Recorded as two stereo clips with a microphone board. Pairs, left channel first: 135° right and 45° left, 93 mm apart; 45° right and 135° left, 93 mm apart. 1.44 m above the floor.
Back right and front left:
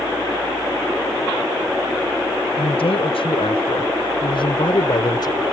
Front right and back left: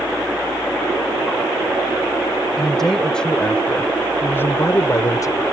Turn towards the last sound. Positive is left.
turn(degrees=-90)